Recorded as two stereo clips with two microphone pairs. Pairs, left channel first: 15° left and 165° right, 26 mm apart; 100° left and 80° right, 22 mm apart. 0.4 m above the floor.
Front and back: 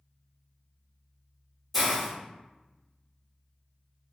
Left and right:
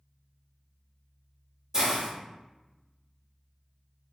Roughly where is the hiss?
Ahead right.